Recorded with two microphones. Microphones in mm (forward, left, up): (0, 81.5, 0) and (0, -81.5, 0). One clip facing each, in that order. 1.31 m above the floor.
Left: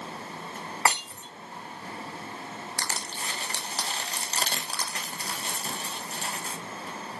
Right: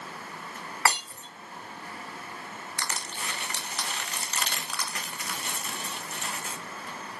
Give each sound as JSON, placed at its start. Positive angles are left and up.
{"t": 0.8, "sound": "breaking glass", "side_deg": 20, "distance_m": 3.0}
{"t": 2.8, "sound": "crushing", "side_deg": 30, "distance_m": 1.2}